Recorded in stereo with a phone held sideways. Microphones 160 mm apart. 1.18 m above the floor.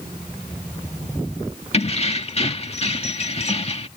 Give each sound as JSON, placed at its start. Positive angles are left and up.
{"t": 1.7, "sound": "keys jangling", "side_deg": 40}